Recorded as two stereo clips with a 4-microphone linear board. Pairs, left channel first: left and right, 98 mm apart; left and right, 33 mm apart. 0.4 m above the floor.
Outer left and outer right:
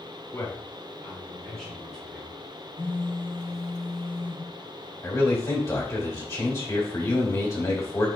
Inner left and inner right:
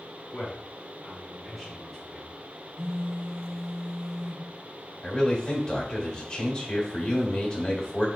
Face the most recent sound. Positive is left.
turn(degrees=30)  # may be behind; listen again after turning